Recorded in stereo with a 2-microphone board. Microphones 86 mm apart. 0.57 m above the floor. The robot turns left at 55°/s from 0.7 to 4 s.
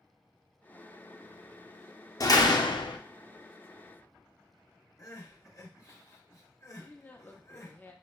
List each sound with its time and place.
2.2 s a door slam: 130° left, 0.5 m; by 3.0 s 85° left, 0.5 m
5.0 s crying: 40° left (ahead or behind), 1.3 m
6.8 s a woman speaking: 20° left (ahead or behind), 0.6 m